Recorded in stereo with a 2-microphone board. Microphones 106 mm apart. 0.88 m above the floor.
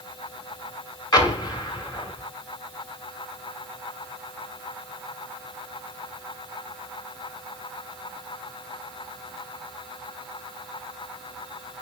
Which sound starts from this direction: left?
An explosion, at 1.1 s.